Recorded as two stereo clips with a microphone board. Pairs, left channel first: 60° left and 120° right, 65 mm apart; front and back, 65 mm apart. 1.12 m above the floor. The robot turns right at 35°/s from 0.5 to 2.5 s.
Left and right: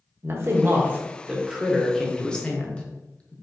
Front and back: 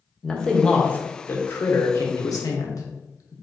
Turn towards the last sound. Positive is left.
turn(degrees=-10)